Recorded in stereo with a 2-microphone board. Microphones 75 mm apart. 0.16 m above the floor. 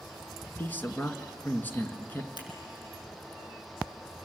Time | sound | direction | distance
0.6 | a man speaking | 25° left (ahead or behind) | 1.9 m
2.4 | scissors | 80° left | 5 m